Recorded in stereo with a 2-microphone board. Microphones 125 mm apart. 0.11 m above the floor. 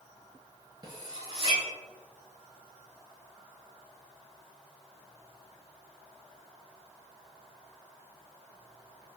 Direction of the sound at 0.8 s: 30° right (ahead or behind).